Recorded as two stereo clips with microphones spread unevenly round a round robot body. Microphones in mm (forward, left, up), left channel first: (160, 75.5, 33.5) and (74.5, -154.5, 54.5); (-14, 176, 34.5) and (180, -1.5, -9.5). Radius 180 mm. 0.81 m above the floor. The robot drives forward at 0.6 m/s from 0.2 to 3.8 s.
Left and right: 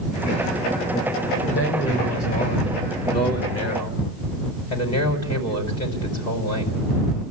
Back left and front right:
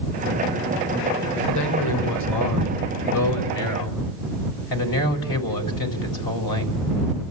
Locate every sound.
1.5 s a man speaking: 130° left, 3.5 m; by 6.8 s 145° left, 4.5 m